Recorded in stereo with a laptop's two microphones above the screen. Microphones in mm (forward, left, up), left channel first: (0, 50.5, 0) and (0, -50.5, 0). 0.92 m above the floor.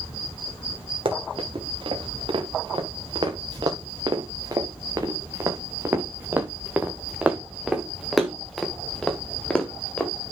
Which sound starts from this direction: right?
Running footsteps, at 1.1 s.